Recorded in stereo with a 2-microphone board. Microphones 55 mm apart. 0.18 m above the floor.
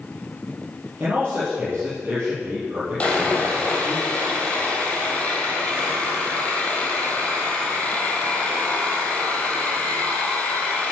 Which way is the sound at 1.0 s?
30° right (ahead or behind).